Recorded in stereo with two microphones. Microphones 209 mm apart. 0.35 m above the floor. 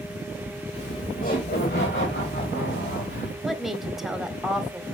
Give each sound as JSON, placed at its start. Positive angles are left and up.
{"t": 0.7, "sound": "laughter", "side_deg": 30, "distance_m": 1.7}
{"t": 3.4, "sound": "a woman speaking", "side_deg": 0, "distance_m": 1.3}